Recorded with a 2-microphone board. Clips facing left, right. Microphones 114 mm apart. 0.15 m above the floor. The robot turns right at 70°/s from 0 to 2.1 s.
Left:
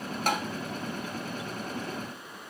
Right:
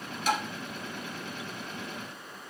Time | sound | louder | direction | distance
0.3 | tapping | even | 55° left (ahead or behind) | 1.1 m